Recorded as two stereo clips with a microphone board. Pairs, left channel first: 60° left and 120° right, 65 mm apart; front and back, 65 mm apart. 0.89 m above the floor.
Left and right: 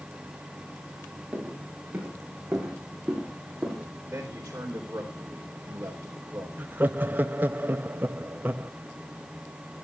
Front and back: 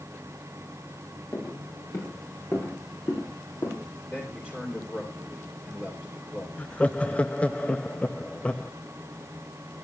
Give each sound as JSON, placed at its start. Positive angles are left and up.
{"t": 1.3, "sound": "footsteps", "azimuth_deg": -45, "distance_m": 9.0}
{"t": 4.1, "sound": "a man speaking", "azimuth_deg": -65, "distance_m": 3.5}
{"t": 6.6, "sound": "laughter", "azimuth_deg": -70, "distance_m": 0.7}